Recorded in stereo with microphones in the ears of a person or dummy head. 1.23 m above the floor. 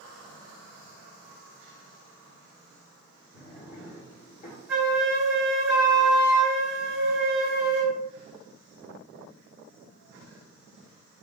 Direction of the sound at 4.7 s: 5° right (ahead or behind).